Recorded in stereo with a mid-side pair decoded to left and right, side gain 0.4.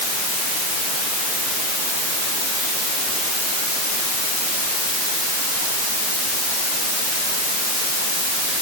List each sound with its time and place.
Only background noise.